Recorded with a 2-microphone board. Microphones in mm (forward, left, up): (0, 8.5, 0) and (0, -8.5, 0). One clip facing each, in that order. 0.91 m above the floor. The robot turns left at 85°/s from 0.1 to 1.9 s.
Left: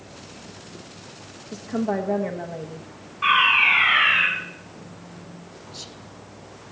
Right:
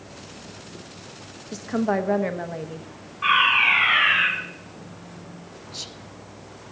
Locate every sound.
1.5 s a woman speaking: 55° right, 0.8 m; by 2.9 s 90° right, 0.8 m
3.2 s a fire alarm: centre (ahead or behind), 7 m
5.7 s whispering: 20° right (ahead or behind), 0.5 m